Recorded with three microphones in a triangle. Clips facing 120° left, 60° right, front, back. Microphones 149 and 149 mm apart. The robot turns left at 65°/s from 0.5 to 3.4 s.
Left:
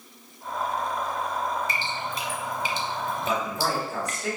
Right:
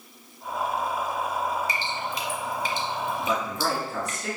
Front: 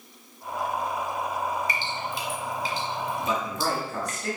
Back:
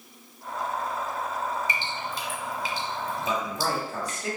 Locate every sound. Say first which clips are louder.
1.7 s dripping: right 1 dB, front 1 dB; 120° left, 0.9 m; by 4.2 s 5° left, 0.9 m
3.2 s a man speaking: left 1 dB, even; 150° left, 1.4 m; by 4.4 s 140° left, 1.4 m